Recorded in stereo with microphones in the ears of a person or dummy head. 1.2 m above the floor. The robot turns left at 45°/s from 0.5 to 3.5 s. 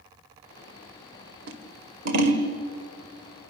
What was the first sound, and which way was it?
Scissors, 65° right (ahead or behind).